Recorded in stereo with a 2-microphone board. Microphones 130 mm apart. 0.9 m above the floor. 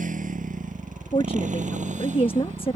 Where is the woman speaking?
45° left (ahead or behind).